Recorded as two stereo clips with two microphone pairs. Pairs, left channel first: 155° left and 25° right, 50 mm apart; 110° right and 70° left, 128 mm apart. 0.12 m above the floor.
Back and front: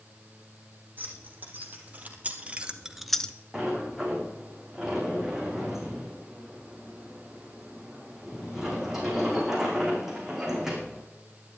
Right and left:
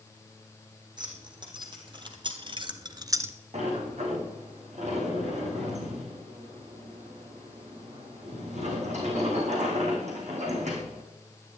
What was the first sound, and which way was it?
Keys jangling, 20° left.